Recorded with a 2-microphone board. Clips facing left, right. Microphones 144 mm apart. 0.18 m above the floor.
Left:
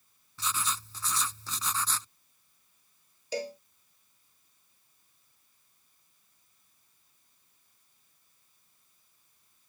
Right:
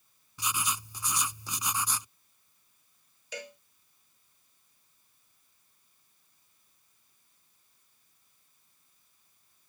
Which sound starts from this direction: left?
A cowbell, at 3.3 s.